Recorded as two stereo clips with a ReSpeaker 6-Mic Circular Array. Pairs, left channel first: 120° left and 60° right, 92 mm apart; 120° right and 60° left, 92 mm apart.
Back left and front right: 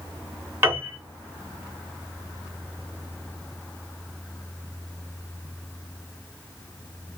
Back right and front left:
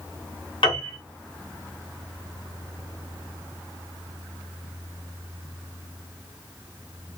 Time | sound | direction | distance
0.6 | a piano | 120° right | 3 m